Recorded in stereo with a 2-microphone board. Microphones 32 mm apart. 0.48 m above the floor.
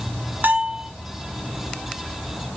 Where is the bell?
85° right, 1.3 m.